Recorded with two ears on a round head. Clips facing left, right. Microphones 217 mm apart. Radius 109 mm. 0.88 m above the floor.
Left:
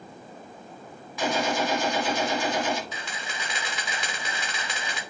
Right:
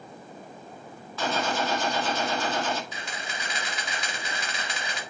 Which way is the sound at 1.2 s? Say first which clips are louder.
Left 2 dB; 15° left (ahead or behind).